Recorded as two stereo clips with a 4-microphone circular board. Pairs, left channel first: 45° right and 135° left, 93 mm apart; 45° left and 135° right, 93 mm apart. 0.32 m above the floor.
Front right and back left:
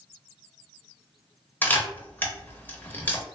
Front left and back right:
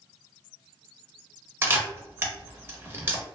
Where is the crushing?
No crushing in this recording.